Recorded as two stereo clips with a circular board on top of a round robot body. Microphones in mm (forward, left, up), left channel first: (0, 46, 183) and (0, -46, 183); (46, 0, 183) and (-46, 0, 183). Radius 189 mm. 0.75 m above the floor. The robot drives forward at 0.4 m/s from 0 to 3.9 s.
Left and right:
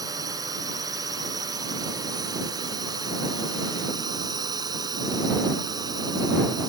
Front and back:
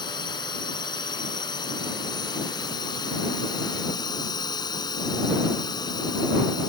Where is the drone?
40° right; by 6.7 s 45° right.